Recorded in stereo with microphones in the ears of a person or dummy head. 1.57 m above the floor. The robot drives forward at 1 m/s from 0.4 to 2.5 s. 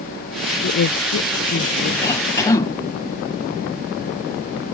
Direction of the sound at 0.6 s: 50° left (ahead or behind).